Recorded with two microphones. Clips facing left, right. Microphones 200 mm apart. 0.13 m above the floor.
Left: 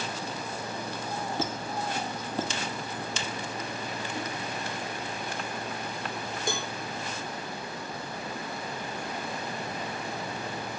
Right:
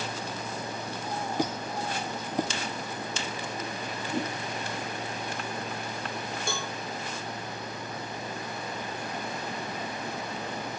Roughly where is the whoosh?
Right.